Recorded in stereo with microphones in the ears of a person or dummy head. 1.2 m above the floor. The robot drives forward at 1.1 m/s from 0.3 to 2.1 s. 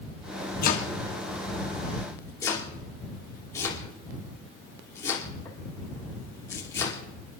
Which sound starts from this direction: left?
Chopping, at 0.6 s.